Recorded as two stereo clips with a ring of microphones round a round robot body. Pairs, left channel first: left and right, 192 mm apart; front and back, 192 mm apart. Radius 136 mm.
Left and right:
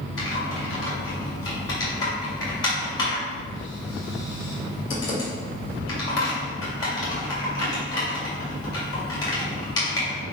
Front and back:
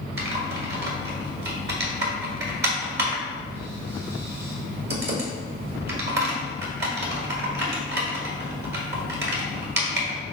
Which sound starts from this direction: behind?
Typing on a keyboard, at 0.2 s.